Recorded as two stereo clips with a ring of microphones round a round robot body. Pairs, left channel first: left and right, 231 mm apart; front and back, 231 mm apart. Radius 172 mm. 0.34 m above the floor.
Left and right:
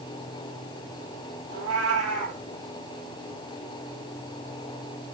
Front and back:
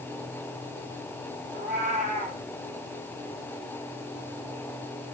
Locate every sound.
1.5 s a cat meowing: 90° right, 5 m